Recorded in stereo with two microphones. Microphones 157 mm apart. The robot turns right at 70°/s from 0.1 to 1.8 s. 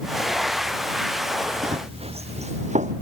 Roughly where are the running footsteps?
Right.